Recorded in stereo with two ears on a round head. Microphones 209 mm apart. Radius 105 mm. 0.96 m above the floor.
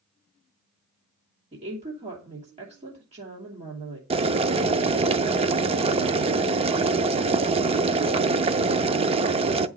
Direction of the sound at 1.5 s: 30° right (ahead or behind).